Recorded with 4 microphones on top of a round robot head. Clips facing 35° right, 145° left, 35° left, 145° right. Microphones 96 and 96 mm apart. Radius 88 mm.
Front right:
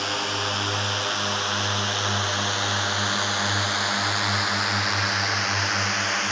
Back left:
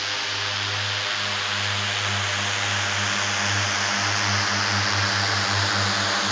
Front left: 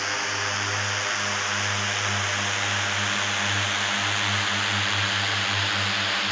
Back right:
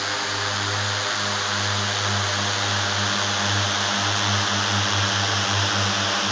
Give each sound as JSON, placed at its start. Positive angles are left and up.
{"t": 0.0, "sound": "a drone", "azimuth_deg": -70}